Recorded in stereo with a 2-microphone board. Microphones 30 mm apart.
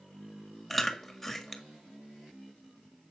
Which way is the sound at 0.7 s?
5° left (ahead or behind).